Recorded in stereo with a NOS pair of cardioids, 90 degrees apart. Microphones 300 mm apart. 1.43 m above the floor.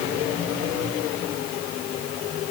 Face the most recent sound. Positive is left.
No sound to turn to.